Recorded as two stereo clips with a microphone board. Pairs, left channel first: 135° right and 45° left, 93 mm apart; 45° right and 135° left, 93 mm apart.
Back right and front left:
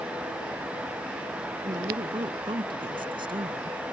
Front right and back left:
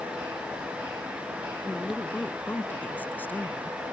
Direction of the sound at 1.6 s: 25° left.